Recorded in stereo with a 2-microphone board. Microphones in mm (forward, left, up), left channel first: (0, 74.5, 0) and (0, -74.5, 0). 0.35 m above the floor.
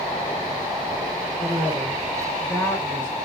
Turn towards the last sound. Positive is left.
turn(degrees=35)  # may be behind; listen again after turning